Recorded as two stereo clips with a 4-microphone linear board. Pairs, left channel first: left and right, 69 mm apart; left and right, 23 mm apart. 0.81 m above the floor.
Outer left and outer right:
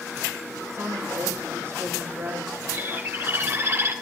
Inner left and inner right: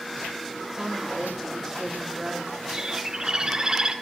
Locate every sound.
0.7 s a woman speaking: 45° right (ahead or behind), 4.5 m
2.7 s a bird: 45° right (ahead or behind), 1.8 m